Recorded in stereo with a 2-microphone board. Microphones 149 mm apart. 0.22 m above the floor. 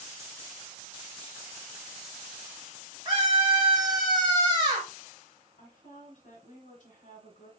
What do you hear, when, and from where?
3.0 s a scream: 30° right (ahead or behind), 1.1 m
5.6 s a woman speaking: 55° left (ahead or behind), 2.5 m